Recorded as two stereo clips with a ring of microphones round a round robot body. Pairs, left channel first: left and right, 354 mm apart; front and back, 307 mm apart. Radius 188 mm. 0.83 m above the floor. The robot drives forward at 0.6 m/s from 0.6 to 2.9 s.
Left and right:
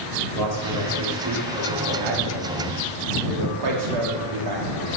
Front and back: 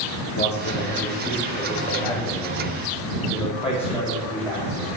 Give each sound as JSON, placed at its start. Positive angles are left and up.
{"t": 0.3, "sound": "a man speaking", "azimuth_deg": -60, "distance_m": 2.5}